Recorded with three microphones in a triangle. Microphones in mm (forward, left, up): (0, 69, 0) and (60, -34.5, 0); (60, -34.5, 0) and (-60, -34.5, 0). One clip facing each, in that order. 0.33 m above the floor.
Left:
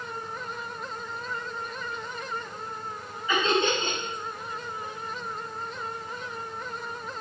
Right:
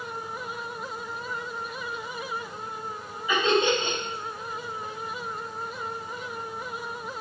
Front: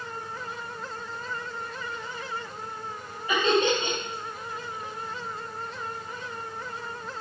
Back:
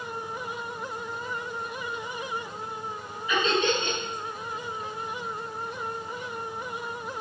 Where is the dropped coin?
No dropped coin in this recording.